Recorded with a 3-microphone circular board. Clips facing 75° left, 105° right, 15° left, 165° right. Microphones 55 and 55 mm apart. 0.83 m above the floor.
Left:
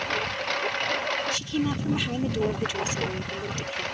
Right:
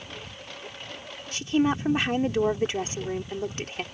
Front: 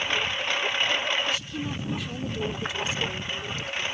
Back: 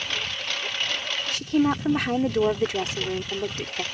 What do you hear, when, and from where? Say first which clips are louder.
0.0 s a lawn mower: left 13 dB, front 3 dB; 85° left; by 3.9 s 80° left
1.3 s a woman speaking: right 3 dB, back 9 dB; 155° right